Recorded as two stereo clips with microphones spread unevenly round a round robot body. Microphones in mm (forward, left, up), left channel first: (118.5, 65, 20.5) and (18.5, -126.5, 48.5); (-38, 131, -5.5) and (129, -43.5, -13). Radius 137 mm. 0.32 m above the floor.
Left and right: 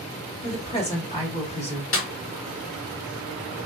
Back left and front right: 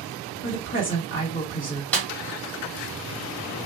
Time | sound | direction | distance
0.4 | a woman speaking | 110° left | 1.8 m
1.9 | a snare drum | 50° left | 1.3 m